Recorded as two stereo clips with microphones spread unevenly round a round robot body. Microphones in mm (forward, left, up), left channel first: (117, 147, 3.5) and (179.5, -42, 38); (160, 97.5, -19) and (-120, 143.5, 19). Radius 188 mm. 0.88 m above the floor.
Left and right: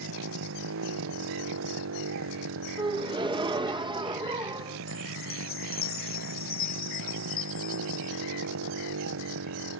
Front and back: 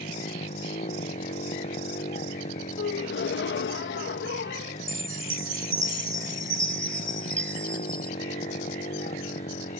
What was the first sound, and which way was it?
A motorcycle, 85° right.